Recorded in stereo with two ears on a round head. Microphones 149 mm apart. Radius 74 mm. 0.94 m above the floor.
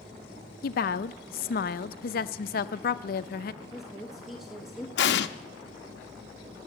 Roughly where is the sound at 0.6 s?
Left.